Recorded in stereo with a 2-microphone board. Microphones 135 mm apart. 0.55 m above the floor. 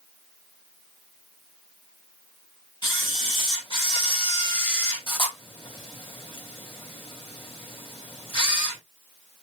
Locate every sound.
2.8 s a camera shutter: 40° left (ahead or behind), 2.5 m